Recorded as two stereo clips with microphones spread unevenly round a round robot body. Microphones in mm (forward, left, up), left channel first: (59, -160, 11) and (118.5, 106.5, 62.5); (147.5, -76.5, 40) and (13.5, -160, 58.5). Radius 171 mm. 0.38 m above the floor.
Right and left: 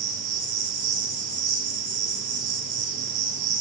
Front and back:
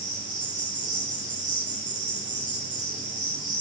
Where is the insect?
125° left, 5 m.